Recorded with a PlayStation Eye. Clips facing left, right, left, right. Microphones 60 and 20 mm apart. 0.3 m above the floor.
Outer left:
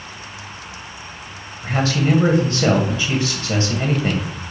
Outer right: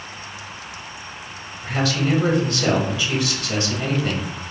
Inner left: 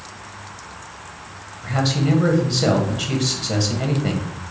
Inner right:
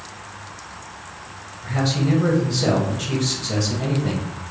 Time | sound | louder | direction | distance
1.6 | a man speaking | outer left 3 dB, inner left 1 dB | 35° left (ahead or behind) | 1.2 m